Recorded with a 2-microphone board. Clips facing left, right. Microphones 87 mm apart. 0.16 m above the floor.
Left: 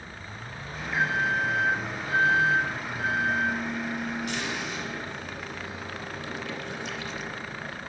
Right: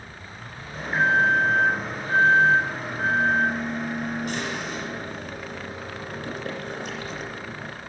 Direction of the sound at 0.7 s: 50° right (ahead or behind).